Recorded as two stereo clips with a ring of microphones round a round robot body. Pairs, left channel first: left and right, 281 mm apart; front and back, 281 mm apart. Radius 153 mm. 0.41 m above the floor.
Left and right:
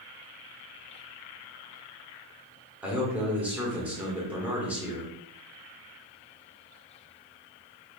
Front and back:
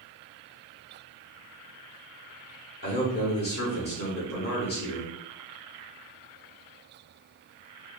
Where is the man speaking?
10° right, 1.2 m.